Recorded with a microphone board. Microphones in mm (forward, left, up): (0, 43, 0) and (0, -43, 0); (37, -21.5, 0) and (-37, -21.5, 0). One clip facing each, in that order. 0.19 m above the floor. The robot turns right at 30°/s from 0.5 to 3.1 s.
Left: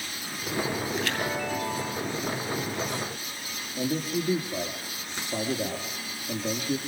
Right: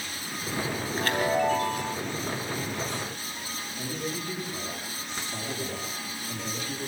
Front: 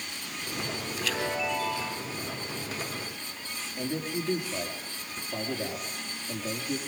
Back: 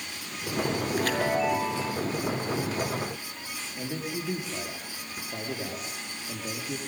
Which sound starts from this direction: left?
A man speaking, at 3.8 s.